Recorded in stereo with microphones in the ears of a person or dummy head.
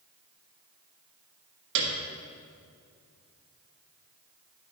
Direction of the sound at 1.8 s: 70° right (ahead or behind).